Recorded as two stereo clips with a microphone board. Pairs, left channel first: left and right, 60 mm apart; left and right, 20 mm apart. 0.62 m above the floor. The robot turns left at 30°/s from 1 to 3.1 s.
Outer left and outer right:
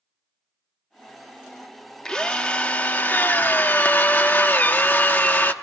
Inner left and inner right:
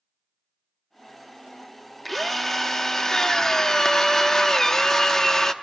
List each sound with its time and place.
2.0 s a drill: 160° left, 0.7 m; by 5.5 s 130° left, 0.7 m